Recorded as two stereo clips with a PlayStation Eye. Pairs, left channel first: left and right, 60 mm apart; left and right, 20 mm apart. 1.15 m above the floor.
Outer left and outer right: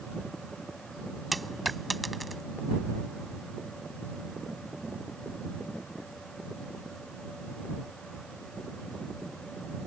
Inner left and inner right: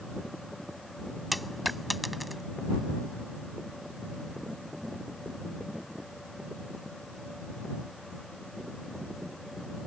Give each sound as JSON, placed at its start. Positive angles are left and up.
{"t": 1.3, "sound": "a dropped coin", "side_deg": 0}